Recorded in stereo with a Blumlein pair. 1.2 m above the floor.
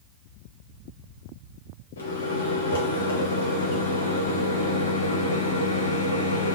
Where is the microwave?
65° left, 0.7 m.